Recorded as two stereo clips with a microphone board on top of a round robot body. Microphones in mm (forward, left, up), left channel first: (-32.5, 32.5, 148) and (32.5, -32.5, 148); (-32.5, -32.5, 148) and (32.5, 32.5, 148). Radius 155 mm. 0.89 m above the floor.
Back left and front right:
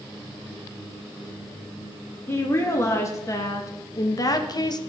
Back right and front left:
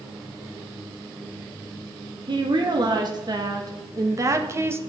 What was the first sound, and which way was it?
A woman speaking, 75° left.